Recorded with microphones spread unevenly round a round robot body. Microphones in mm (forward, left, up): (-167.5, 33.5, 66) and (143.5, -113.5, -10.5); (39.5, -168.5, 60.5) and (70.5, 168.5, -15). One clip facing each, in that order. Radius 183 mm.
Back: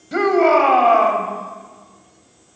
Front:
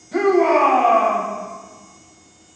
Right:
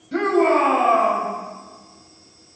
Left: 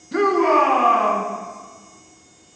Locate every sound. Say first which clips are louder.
0.1 s a shout: even, even; 170° left, 2.5 m